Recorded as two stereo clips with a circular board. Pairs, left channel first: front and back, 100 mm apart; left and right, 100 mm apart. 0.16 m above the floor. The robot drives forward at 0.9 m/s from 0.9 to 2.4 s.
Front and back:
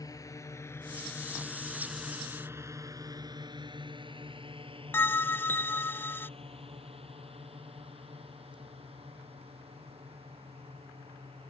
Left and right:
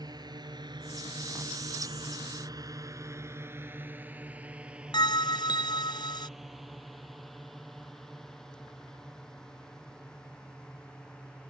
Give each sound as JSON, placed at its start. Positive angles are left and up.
{"t": 0.0, "sound": "a drone", "azimuth_deg": -50}
{"t": 4.9, "sound": "a bell", "azimuth_deg": 65}